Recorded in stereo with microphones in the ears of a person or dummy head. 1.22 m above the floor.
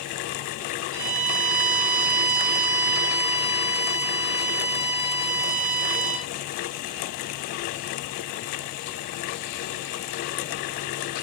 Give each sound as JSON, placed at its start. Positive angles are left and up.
{"t": 0.9, "sound": "a violin", "side_deg": -20, "distance_m": 1.7}